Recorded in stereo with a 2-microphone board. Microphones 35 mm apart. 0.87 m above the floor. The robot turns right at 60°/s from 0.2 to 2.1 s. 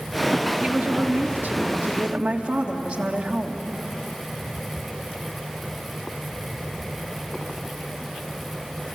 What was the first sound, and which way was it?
A woman speaking, 125° right.